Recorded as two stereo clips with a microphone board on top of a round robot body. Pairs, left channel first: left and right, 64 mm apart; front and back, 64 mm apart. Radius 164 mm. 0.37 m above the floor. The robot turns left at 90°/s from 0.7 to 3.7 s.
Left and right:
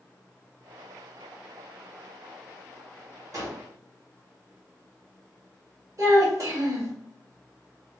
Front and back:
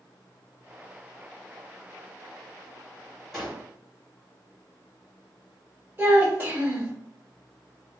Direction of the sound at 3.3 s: 90° right.